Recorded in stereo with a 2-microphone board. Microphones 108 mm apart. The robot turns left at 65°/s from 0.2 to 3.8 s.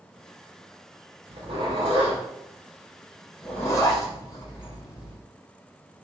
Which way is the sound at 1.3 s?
50° right (ahead or behind).